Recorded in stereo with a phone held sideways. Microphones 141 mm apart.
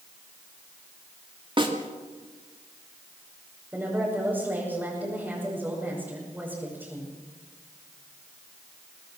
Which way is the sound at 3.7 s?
10° right (ahead or behind).